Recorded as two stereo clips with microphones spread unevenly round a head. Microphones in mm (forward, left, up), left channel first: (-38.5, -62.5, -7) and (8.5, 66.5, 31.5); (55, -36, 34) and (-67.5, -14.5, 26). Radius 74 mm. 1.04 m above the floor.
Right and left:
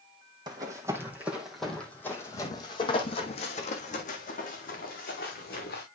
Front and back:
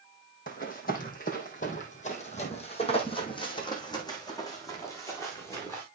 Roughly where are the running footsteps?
Ahead.